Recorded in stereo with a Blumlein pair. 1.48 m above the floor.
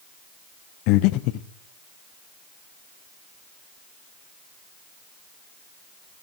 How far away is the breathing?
About 0.6 m.